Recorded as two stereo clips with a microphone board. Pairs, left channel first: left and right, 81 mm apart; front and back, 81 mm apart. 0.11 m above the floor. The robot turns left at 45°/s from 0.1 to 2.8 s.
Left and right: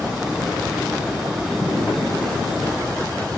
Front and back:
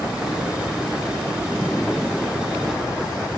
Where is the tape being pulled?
140° right, 1.2 m; by 1.7 s 145° right, 1.2 m.